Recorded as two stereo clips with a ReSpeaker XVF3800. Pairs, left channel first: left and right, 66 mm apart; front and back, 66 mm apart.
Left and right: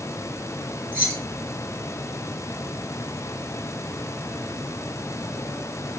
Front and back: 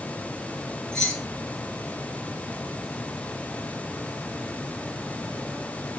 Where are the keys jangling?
65° right, 0.9 m.